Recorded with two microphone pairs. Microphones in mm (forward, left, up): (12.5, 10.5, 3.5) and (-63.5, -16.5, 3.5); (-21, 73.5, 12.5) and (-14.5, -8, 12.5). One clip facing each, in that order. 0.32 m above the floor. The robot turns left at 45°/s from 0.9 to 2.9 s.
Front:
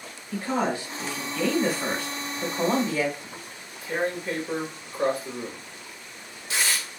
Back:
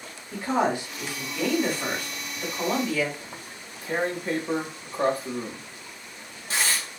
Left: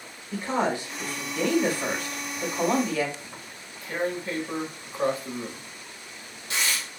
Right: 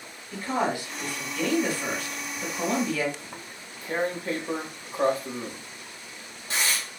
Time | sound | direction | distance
0.3 | a woman speaking | 140° left | 1.3 m
3.2 | tearing paper | 125° right | 1.4 m